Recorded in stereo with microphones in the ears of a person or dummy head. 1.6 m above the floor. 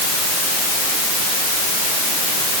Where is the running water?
No running water in this recording.